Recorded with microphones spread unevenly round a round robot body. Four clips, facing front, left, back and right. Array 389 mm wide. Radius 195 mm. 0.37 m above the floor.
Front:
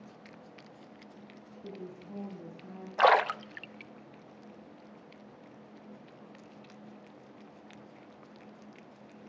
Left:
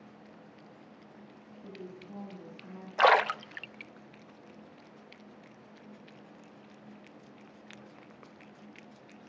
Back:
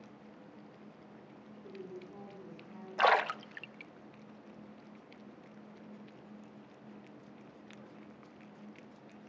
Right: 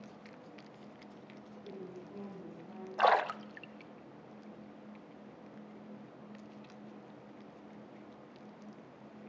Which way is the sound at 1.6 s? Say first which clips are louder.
Left 1 dB, front 2 dB; 20° left.